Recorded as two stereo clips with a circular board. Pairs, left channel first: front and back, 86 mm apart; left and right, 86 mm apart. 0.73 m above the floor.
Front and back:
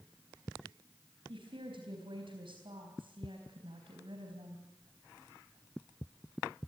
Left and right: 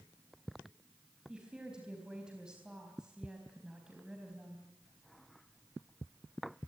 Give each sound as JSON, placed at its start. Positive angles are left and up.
{"t": 1.3, "sound": "a woman speaking", "azimuth_deg": -170, "distance_m": 4.0}